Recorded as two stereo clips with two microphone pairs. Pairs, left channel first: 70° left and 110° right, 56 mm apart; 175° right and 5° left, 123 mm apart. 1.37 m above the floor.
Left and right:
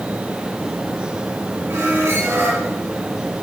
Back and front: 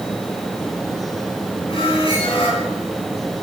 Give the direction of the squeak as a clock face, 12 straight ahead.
5 o'clock.